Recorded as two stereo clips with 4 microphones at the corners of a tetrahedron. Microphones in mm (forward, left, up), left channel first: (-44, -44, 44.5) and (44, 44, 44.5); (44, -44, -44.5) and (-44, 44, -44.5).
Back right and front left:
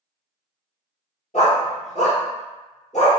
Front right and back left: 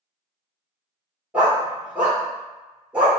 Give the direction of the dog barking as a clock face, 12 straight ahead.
5 o'clock.